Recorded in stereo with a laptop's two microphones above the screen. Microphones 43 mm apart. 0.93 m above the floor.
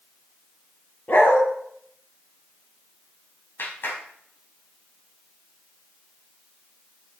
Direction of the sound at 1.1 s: 55° left (ahead or behind).